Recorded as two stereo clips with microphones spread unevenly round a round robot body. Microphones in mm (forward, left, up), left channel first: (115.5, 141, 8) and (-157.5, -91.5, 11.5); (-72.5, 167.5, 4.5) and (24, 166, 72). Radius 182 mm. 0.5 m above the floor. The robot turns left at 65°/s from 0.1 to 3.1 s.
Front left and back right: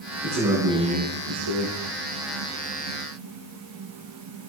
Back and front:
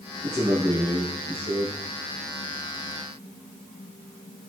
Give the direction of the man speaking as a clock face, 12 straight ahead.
3 o'clock.